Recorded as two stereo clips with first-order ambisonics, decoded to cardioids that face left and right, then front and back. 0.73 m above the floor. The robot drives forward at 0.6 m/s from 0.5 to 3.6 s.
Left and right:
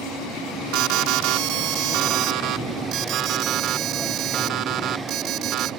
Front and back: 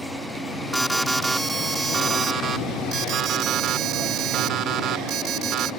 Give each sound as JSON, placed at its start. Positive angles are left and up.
{"t": 0.7, "sound": "an alarm", "azimuth_deg": -95}